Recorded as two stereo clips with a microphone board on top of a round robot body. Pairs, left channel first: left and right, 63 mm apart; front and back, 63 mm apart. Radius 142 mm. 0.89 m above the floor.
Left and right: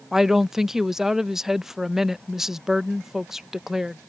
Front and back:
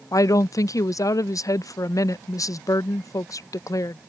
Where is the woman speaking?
5° right.